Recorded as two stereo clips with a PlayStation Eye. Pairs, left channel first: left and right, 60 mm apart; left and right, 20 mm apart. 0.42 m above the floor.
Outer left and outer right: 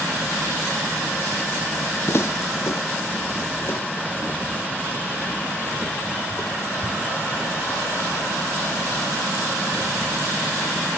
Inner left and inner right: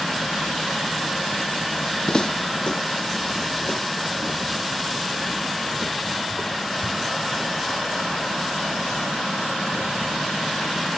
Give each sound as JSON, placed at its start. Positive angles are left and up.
{"t": 2.1, "sound": "footsteps", "side_deg": 55, "distance_m": 0.7}